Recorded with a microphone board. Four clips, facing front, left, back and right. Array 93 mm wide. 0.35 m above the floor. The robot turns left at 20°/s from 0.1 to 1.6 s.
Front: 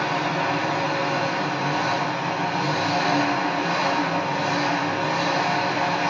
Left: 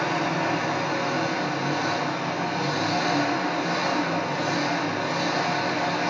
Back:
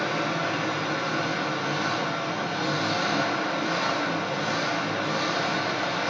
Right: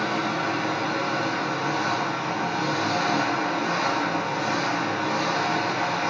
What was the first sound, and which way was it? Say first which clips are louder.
An engine running: left 1 dB, front 3 dB; 20° left.